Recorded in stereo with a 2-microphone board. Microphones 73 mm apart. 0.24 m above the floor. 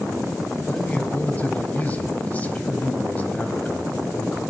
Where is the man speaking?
25° left (ahead or behind), 1.1 m.